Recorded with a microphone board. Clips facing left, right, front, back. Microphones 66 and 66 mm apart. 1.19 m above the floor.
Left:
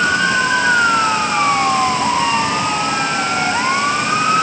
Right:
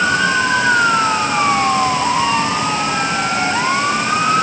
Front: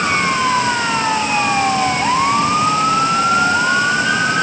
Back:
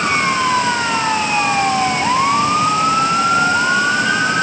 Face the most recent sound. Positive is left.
No sound to turn to.